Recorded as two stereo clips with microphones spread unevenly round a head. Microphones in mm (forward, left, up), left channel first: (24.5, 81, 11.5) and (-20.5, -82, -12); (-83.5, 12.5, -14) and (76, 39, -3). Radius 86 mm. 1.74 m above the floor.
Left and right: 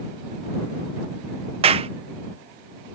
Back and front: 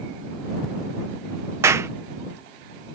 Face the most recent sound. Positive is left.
turn(degrees=-55)